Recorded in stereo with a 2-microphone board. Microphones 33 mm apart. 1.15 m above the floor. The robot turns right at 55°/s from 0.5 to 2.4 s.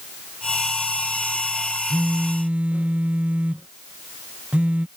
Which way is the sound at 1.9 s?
65° right (ahead or behind).